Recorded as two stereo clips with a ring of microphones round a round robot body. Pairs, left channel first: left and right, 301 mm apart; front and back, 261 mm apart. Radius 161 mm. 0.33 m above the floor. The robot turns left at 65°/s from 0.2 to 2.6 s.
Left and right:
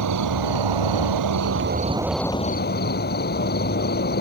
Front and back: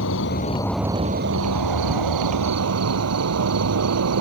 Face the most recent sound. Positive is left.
turn(degrees=150)